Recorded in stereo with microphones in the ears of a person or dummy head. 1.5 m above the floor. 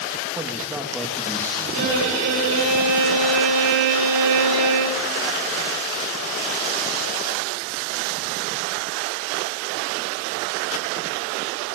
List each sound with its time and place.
0.3 s a man speaking: 20° right (ahead or behind), 2.5 m; by 2.7 s 40° left (ahead or behind), 3.5 m
1.7 s a violin: 85° right, 6 m